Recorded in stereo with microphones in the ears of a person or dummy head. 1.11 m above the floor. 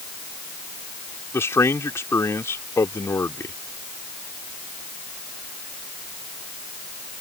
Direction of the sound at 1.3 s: 15° left (ahead or behind).